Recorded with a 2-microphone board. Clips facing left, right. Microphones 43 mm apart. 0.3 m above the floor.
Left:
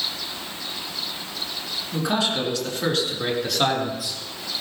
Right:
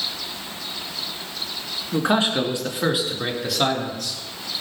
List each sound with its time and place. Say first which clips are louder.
1.9 s a man speaking: right 4 dB; 40° right (ahead or behind), 4 m; by 4.2 s 10° left (ahead or behind), 4.5 m